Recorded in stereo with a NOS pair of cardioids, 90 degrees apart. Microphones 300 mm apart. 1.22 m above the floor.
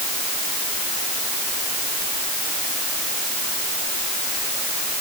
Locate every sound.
Only background noise.